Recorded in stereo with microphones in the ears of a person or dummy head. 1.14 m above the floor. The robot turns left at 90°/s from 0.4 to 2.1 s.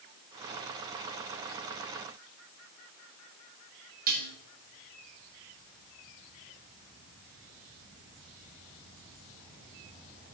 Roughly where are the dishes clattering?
Right.